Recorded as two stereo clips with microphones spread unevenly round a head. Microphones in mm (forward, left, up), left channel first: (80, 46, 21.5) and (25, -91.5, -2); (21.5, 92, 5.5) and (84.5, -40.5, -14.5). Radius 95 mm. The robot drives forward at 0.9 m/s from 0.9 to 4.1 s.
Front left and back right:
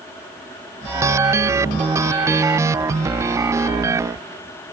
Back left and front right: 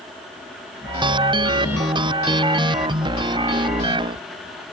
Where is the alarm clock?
I don't hear an alarm clock.